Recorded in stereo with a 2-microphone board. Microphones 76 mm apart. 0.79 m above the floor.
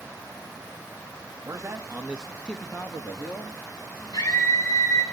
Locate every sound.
1.4 s a man speaking: 50° right (ahead or behind), 1.6 m; by 5.1 s 65° left (ahead or behind), 4.5 m
4.1 s a scream: 60° left (ahead or behind), 7 m